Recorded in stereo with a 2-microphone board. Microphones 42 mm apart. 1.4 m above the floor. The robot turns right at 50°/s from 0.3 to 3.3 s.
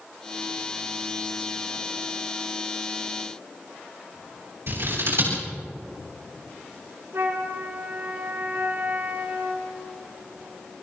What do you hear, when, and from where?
4.7 s scissors: 65° right (ahead or behind), 8.5 m
7.1 s a flute: 60° right (ahead or behind), 3 m